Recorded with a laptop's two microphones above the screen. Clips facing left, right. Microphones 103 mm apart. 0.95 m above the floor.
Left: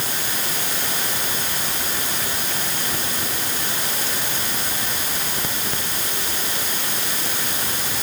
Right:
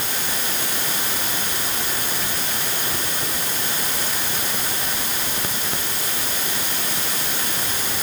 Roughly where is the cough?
No cough in this recording.